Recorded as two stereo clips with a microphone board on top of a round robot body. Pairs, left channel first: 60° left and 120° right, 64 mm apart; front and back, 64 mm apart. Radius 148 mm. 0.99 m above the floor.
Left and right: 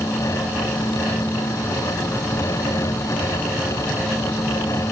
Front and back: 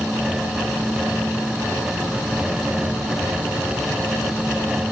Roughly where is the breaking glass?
No breaking glass in this recording.